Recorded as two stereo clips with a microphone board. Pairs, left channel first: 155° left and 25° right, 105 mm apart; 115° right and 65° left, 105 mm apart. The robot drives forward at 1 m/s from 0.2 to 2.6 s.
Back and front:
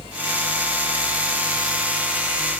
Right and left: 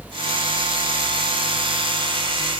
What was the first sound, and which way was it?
Only background noise.